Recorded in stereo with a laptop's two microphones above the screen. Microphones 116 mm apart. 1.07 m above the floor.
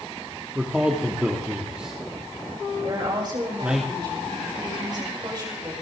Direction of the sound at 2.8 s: 40° right (ahead or behind).